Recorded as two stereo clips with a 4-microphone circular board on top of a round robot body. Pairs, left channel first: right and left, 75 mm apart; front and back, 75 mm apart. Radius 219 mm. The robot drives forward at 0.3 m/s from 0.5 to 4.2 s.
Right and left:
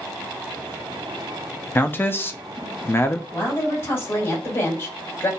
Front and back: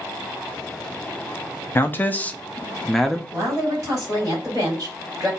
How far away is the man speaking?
About 1.0 m.